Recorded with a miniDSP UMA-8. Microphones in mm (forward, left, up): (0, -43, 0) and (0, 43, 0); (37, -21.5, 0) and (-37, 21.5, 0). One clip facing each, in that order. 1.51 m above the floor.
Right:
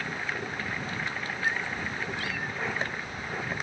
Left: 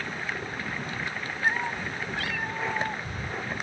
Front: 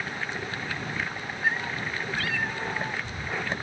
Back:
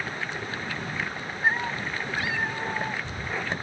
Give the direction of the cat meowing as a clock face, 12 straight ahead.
8 o'clock.